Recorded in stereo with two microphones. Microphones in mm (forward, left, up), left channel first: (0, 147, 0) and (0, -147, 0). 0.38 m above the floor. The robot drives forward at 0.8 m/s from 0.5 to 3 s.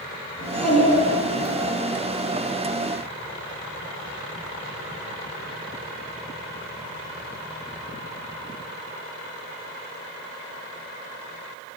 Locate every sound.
0.4 s a child speaking: 70° left (ahead or behind), 3.5 m; by 1.7 s 60° left (ahead or behind), 3.5 m